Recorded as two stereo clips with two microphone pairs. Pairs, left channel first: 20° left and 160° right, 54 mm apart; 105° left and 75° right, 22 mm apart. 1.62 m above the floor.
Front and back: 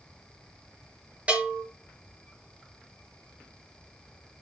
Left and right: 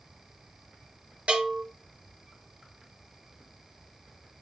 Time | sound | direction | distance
1.3 | a bell | 95° right | 5.5 m